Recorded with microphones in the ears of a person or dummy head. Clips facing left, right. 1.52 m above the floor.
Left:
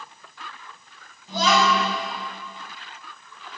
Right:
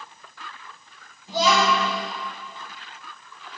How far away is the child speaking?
About 3.5 m.